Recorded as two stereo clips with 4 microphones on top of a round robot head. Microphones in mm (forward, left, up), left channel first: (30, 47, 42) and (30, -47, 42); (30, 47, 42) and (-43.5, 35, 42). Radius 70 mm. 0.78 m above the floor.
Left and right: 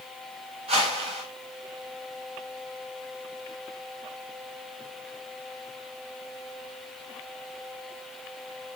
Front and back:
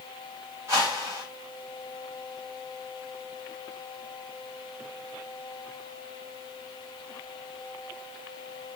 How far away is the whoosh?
About 1.9 m.